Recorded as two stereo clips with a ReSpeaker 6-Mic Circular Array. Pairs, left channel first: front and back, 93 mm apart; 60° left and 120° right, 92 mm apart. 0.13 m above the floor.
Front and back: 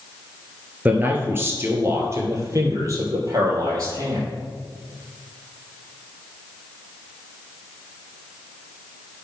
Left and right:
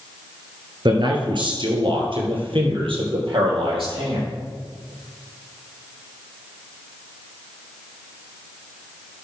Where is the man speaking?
115° right, 1.7 m; by 4.3 s 135° right, 3.5 m.